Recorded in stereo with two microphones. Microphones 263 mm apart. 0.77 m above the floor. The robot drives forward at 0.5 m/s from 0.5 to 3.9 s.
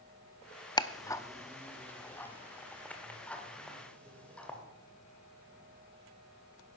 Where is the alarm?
I don't hear an alarm.